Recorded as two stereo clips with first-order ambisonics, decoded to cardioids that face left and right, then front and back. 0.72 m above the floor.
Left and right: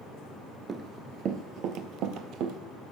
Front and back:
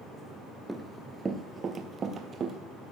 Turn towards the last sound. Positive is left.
turn(degrees=-115)